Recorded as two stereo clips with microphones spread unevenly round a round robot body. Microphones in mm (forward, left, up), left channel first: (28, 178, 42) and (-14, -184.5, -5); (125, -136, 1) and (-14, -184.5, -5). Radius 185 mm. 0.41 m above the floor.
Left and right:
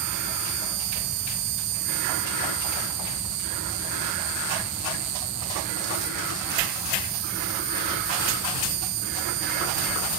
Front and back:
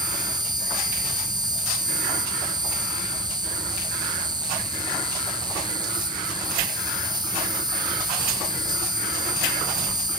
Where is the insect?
95° right, 1.4 m.